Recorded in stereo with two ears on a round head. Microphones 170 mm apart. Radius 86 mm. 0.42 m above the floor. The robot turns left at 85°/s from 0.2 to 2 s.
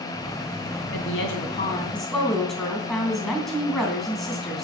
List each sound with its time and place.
0.9 s a woman speaking: 95° left, 3 m; by 4.7 s straight ahead, 3 m